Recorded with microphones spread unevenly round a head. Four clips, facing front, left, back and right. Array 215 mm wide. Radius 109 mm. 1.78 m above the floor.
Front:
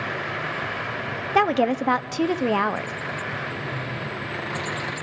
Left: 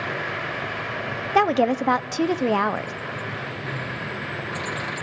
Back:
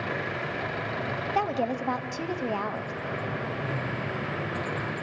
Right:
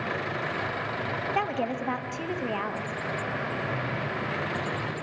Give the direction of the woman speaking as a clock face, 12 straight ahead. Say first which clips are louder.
Left 12 dB, front 8 dB; 10 o'clock.